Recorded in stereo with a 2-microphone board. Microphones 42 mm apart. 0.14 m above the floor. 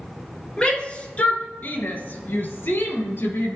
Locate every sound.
0.6 s a shout: 25° left (ahead or behind), 2 m; by 3.6 s 65° left (ahead or behind), 3.5 m